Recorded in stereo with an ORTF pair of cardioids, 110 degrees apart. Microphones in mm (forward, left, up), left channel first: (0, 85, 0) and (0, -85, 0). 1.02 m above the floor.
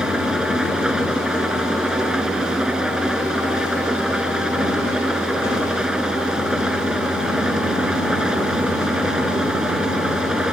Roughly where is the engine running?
Ahead.